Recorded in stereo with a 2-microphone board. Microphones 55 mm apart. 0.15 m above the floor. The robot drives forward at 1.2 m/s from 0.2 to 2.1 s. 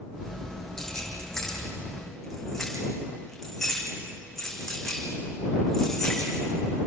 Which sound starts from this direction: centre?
Keys jangling, at 0.8 s.